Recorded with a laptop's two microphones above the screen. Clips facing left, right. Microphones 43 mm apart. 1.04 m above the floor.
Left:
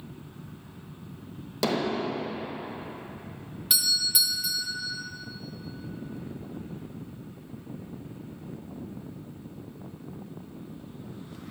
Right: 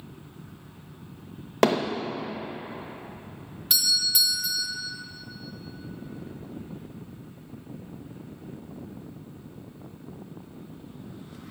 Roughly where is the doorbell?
Centre.